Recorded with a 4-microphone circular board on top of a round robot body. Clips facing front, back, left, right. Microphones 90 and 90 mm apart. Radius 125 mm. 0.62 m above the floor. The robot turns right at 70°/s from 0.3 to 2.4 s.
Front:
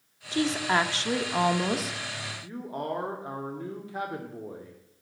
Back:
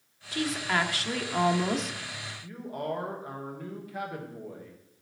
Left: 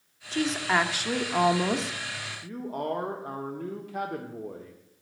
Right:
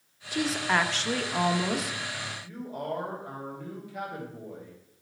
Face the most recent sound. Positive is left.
turn(degrees=60)